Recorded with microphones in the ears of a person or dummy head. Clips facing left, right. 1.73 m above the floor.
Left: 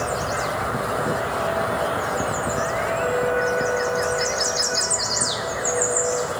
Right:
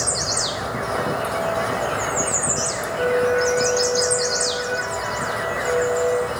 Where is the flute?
10° right (ahead or behind), 6 m.